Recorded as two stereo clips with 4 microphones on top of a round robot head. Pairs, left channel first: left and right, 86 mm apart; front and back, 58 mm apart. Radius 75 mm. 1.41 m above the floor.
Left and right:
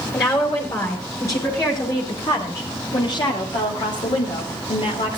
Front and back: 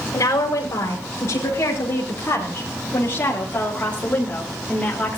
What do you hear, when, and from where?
0.1 s a woman speaking: 35° left, 4 m; by 5.2 s 80° left, 3 m